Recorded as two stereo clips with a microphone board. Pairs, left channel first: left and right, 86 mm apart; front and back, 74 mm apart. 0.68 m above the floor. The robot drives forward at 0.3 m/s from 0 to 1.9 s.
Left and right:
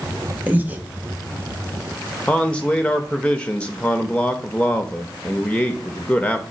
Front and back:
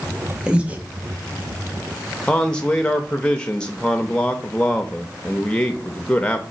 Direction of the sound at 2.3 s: 45° left.